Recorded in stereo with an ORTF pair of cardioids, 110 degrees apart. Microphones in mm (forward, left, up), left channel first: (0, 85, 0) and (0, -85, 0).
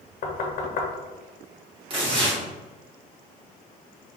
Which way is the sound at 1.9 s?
30° right.